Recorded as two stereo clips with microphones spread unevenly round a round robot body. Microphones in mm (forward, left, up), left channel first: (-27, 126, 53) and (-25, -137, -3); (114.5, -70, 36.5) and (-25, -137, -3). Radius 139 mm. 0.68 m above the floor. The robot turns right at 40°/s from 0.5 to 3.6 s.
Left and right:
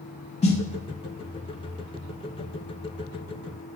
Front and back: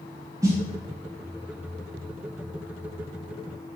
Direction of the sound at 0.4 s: 160° left.